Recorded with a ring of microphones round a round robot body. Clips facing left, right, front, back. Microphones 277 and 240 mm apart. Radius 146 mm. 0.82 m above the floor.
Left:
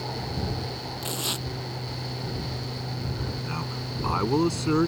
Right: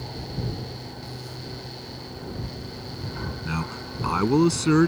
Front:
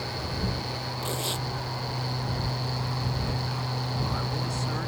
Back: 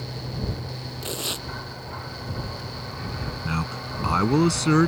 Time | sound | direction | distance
1.0 | tearing paper | 100° left | ?
3.5 | a man speaking | 150° right | ?